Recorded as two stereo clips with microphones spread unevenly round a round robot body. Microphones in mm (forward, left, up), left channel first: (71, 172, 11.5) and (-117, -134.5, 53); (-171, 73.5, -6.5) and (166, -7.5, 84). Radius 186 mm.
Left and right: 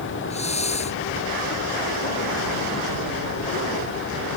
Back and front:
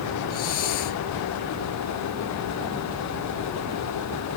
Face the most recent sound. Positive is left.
turn(degrees=130)